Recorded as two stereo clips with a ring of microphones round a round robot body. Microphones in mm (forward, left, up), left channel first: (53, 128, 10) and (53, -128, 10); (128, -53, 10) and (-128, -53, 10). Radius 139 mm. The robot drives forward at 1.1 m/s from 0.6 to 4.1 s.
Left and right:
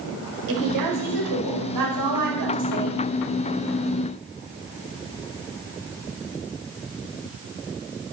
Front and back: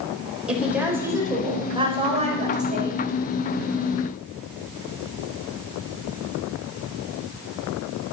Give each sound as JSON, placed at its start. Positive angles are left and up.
{"t": 0.5, "sound": "a woman speaking", "azimuth_deg": -95, "distance_m": 5.0}